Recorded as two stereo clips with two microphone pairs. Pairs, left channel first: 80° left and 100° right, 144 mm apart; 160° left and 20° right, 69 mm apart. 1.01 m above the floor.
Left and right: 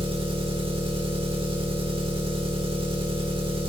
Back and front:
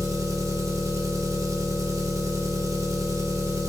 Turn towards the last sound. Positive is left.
turn(degrees=-50)